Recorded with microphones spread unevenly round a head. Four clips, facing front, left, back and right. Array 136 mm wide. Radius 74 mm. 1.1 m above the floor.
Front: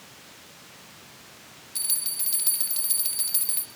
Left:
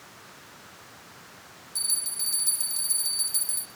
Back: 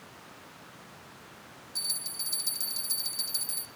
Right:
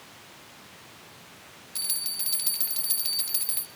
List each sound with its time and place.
1.8 s a bell: 45° right, 2 m